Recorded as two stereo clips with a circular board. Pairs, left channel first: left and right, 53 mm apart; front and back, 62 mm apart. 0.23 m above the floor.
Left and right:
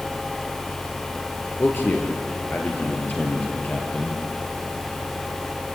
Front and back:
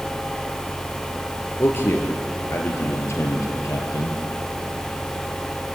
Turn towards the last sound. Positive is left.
turn(degrees=30)